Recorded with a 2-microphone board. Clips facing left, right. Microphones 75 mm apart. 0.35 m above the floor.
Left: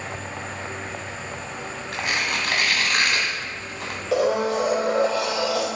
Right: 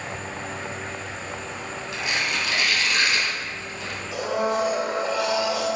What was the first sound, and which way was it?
Tearing paper, 50° left (ahead or behind).